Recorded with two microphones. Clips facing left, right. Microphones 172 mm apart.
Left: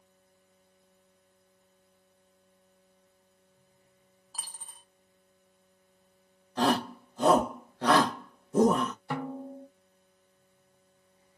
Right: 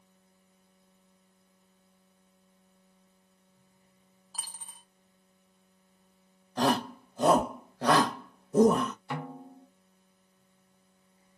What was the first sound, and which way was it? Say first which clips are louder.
A dropped coin: even; centre (ahead or behind).